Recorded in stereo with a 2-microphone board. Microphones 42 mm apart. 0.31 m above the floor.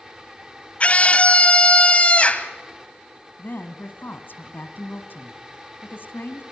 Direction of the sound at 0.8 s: 30° left (ahead or behind).